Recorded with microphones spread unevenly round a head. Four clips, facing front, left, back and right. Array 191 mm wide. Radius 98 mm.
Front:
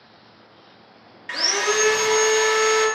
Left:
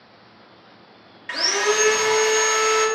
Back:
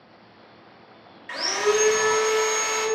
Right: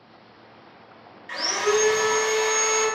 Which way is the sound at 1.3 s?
45° left.